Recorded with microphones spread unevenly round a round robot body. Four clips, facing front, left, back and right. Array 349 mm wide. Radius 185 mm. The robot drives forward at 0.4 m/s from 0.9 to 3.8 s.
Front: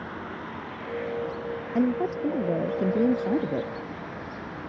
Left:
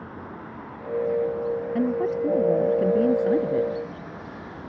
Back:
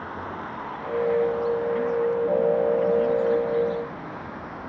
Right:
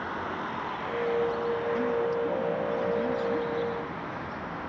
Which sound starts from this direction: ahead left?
A woman speaking, at 1.8 s.